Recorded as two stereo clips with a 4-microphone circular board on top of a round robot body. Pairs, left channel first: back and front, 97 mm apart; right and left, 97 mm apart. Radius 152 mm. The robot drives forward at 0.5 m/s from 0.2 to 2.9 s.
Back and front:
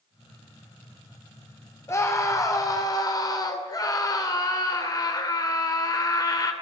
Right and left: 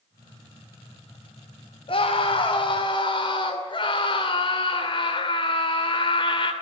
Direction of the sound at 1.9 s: 115° right.